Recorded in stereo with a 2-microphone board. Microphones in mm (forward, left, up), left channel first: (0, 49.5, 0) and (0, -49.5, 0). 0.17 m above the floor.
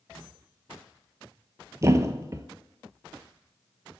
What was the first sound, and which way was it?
A thud, 30° right (ahead or behind).